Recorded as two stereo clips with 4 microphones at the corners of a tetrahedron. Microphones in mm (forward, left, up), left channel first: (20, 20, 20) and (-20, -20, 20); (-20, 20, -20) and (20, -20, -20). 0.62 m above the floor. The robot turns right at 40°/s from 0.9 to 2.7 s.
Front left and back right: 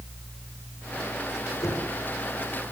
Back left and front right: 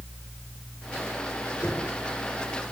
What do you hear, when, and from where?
1.6 s knocking: 60° left, 7 m; by 1.9 s 70° left, 7 m